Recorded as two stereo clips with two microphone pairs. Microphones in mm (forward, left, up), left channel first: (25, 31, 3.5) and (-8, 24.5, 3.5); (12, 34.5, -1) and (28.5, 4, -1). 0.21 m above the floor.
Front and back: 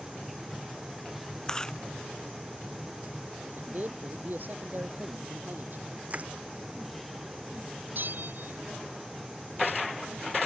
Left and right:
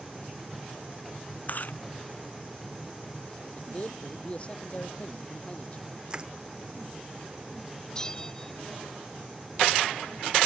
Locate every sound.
1.5 s chewing: 80° left
3.5 s a man speaking: 175° left
6.1 s crushing: 125° right
8.0 s a bell: 170° right